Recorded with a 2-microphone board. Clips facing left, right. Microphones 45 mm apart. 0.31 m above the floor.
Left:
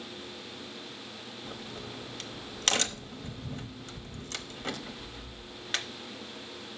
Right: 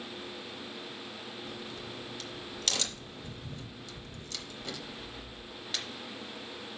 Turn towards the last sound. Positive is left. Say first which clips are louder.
# even
turn(degrees=45)  # may be behind; listen again after turning